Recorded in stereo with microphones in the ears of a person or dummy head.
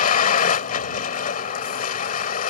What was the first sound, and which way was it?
A vehicle, 45° left (ahead or behind).